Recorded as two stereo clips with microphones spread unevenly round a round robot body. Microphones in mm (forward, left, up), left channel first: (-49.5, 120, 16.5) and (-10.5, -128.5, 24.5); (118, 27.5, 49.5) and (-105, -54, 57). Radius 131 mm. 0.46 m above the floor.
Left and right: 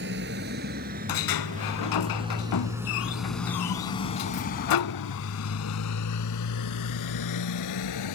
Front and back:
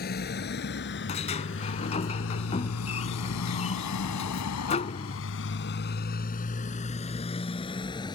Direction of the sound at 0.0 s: 30° right.